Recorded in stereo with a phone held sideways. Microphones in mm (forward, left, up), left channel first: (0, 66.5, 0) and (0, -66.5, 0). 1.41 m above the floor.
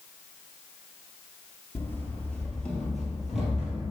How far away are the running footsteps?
About 1.5 m.